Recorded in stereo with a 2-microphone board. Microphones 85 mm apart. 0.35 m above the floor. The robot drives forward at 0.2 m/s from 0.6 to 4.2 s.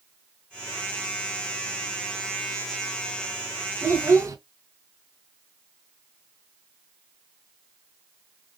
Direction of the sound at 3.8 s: 40° right (ahead or behind).